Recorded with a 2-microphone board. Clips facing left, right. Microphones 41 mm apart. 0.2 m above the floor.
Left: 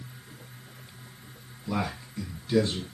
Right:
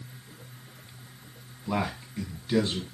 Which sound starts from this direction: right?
A man speaking, at 1.7 s.